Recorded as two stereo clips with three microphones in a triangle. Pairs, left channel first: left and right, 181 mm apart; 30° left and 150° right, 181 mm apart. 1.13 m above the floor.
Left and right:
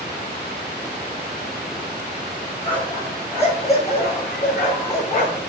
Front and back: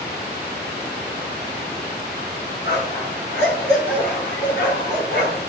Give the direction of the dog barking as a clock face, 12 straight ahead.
11 o'clock.